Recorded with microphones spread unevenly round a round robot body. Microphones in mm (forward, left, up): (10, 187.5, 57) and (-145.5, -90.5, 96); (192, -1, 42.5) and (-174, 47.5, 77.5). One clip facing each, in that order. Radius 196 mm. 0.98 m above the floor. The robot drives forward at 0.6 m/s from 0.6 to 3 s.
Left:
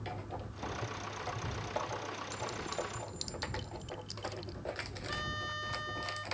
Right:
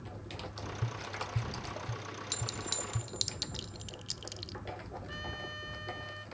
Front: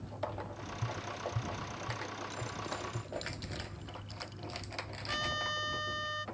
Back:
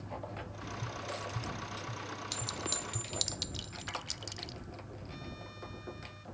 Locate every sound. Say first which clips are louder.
0.8 s tapping: even, front 2 dB; 85° right; by 3.1 s 105° right
2.3 s a clink: left 3 dB, even; 155° right; by 4.6 s 160° right
5.1 s a trumpet: left 1 dB, front 4 dB; 20° right